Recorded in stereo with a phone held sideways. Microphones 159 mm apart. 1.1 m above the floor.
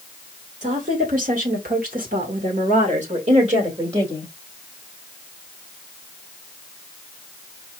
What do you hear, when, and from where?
0.6 s a woman speaking: 55° right (ahead or behind), 1.8 m; by 4.3 s 40° right (ahead or behind), 2.5 m